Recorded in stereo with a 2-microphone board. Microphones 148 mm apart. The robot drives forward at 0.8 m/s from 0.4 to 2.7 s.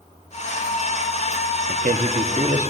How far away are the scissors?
No scissors in this recording.